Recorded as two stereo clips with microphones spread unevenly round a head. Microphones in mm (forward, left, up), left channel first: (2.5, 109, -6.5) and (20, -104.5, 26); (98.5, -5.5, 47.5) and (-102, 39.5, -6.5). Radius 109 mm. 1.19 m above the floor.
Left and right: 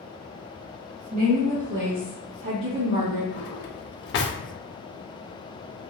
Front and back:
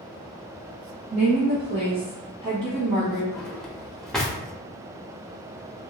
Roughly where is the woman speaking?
Behind right.